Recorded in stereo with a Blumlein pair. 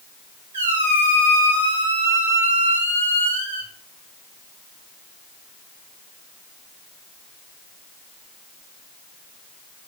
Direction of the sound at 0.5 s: 65° right.